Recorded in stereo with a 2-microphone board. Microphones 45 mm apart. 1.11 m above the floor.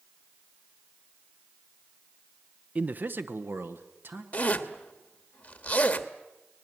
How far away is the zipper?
About 1.3 m.